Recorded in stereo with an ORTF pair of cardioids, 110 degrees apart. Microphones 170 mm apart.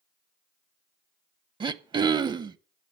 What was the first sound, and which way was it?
Throat clearing, 30° right.